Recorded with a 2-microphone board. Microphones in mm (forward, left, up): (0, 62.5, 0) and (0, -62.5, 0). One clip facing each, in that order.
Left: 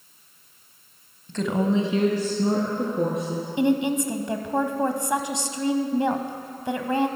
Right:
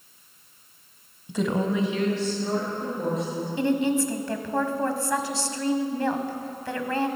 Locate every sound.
1.3 s a woman speaking: 15° right (ahead or behind), 1.0 m; by 3.5 s 70° left (ahead or behind), 3.5 m
3.6 s a woman speaking: 20° left (ahead or behind), 1.0 m